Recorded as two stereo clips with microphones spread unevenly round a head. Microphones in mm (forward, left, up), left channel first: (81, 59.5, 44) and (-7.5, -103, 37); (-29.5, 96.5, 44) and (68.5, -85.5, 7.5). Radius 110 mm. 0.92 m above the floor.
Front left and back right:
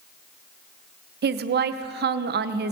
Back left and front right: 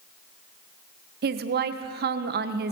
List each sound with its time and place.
1.2 s a woman speaking: 95° right, 0.5 m